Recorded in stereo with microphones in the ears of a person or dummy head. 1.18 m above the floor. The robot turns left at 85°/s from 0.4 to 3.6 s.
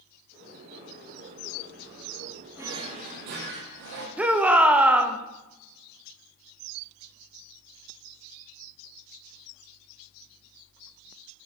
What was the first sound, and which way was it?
A drawer, 15° right.